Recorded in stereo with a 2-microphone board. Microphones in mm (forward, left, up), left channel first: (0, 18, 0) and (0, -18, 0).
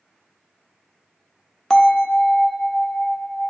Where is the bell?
15° left (ahead or behind), 0.6 m.